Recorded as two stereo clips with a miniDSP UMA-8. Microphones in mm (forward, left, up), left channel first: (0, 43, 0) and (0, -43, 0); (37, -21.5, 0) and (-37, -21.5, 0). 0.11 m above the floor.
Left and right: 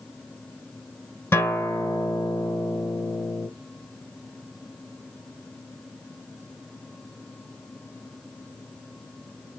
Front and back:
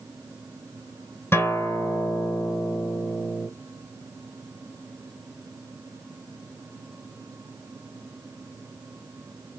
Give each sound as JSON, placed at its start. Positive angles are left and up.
{"t": 1.3, "sound": "a guitar", "azimuth_deg": 35, "distance_m": 1.3}